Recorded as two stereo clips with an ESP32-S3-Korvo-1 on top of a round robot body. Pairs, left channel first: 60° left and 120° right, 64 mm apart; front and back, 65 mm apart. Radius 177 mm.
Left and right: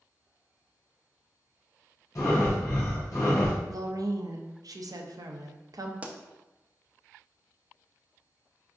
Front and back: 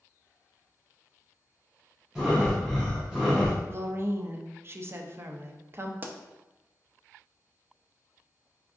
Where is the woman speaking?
130° right, 0.6 m.